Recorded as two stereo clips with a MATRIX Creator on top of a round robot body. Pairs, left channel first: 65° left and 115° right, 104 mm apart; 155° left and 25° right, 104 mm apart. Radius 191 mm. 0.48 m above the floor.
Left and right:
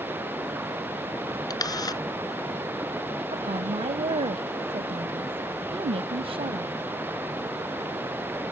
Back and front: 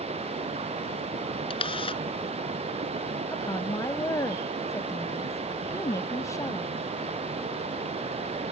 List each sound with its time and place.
0.0 s running water: 40° right
1.5 s a camera shutter: 120° left
3.3 s a woman speaking: 140° right